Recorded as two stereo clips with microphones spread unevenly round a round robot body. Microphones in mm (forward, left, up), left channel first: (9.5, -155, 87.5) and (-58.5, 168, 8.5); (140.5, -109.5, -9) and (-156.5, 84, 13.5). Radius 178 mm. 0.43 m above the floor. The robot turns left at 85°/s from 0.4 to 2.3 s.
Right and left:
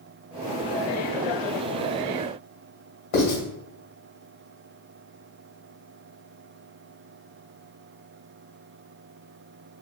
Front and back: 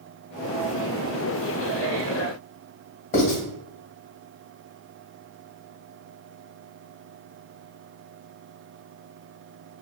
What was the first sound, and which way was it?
Writing, 95° right.